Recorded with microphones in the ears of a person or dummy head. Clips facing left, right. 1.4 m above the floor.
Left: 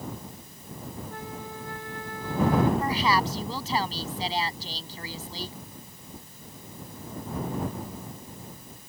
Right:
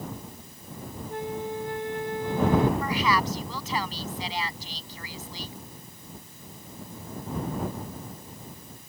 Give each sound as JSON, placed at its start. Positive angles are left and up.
{"t": 1.1, "sound": "a flute", "side_deg": -20}
{"t": 2.8, "sound": "a woman speaking", "side_deg": 30}